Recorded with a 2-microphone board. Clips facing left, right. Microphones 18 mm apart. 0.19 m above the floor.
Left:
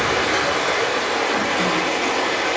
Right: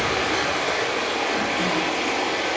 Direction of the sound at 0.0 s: 45° left (ahead or behind).